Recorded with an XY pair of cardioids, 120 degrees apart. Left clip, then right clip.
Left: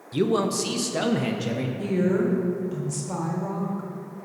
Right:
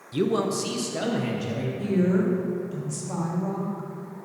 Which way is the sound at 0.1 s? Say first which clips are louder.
Left 1 dB; 5° left.